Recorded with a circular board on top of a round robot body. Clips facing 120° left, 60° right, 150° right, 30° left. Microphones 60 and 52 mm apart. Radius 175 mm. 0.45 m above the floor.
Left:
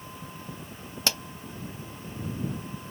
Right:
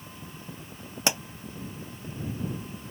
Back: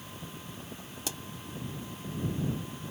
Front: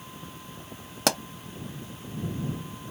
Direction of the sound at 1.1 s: 15° left.